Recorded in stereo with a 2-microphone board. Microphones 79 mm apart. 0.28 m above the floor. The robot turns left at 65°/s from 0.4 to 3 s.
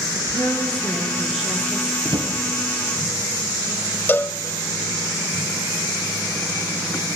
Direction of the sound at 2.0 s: 75° right (ahead or behind).